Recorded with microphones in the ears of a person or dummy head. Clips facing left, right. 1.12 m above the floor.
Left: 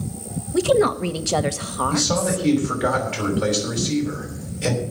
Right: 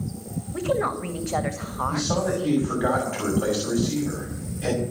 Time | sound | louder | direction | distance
0.5 | a woman speaking | left 8 dB | 45° left (ahead or behind) | 1.2 m
1.9 | a man speaking | left 2 dB | 25° left (ahead or behind) | 6.5 m